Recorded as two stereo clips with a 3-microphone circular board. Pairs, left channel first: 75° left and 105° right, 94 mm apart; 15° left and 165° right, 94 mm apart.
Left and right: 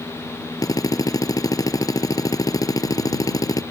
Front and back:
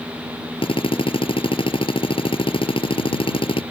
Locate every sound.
0.6 s a drill: 25° left